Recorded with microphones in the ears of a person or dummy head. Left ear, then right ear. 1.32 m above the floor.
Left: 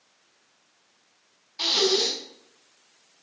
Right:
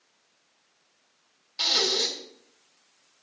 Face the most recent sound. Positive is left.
turn(degrees=-30)  # may be behind; listen again after turning